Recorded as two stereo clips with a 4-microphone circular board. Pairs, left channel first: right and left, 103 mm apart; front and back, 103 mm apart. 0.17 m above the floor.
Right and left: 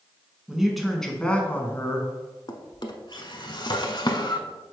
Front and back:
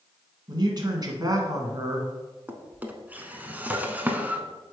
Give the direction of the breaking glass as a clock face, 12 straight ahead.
No breaking glass in this recording.